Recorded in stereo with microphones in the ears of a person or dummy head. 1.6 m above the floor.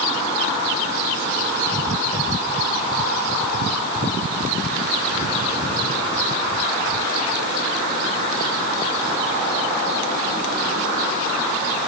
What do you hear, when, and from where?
Only background noise.